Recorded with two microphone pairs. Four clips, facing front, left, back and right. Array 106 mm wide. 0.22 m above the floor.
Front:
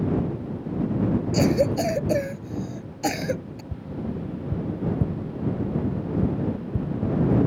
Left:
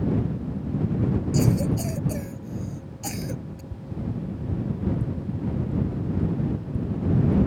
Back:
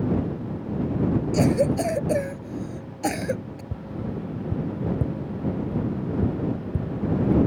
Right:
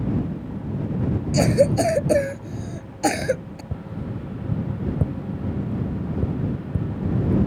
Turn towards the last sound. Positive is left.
turn(degrees=-100)